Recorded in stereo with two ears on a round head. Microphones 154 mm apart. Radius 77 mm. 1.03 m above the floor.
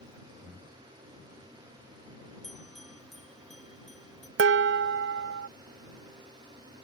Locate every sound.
0.4 s breathing: centre (ahead or behind)
2.4 s a bell: centre (ahead or behind)
4.4 s dishes clattering: 70° right (ahead or behind)